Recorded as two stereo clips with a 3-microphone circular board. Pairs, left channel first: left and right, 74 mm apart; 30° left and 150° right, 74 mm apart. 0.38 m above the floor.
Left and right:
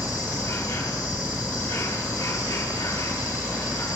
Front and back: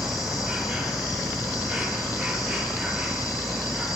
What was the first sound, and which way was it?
An insect, 125° left.